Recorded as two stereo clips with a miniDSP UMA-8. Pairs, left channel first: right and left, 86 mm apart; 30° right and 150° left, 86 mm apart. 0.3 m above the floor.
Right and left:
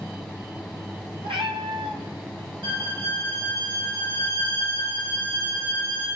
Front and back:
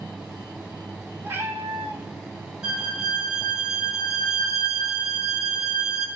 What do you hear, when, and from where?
1.2 s a cat meowing: 85° left, 0.8 m
2.6 s a violin: 70° left, 2 m